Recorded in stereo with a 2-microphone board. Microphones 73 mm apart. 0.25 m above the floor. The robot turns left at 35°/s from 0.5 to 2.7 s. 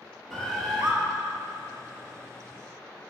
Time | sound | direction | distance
0.3 | a bird | 5° left (ahead or behind) | 2 m